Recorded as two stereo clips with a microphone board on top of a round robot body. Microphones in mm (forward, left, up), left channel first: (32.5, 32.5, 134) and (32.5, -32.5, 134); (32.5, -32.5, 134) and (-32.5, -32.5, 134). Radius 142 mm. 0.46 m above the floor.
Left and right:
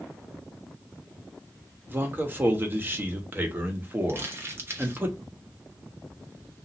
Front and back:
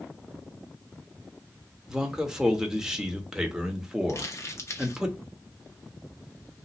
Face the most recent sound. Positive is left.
turn(degrees=-40)